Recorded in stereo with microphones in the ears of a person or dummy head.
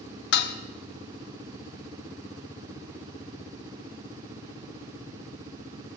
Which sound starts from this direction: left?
Dishes clattering, at 0.3 s.